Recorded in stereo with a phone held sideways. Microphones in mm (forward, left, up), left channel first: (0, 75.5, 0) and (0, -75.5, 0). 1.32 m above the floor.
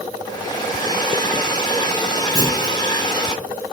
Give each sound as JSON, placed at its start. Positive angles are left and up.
{"t": 0.2, "sound": "a hair dryer", "side_deg": 30, "distance_m": 1.3}
{"t": 2.4, "sound": "a clunk", "side_deg": 25, "distance_m": 1.0}